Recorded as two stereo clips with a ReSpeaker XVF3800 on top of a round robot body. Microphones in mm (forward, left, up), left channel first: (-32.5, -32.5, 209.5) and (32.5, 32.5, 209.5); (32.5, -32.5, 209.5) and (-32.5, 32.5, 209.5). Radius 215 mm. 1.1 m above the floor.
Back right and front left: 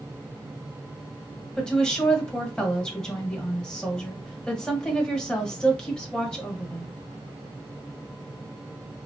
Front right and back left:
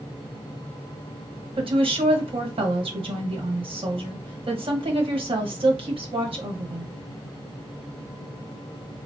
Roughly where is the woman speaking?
Behind left.